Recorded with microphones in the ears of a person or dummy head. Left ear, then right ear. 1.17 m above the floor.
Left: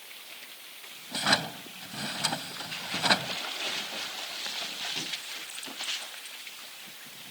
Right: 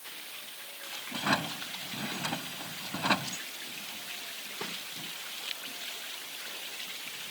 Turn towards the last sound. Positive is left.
turn(degrees=35)  # may be behind; listen again after turning